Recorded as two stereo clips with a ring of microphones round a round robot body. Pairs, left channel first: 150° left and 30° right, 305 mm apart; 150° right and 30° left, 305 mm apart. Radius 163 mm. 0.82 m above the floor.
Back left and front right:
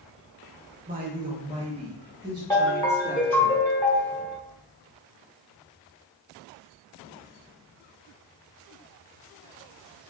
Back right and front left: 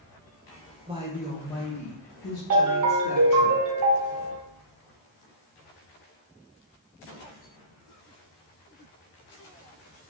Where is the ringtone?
70° left, 1.1 m.